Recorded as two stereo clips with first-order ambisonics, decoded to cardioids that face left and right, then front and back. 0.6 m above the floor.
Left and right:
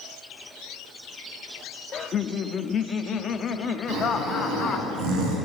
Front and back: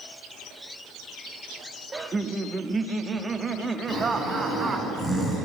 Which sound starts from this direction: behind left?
Laughter, at 1.9 s.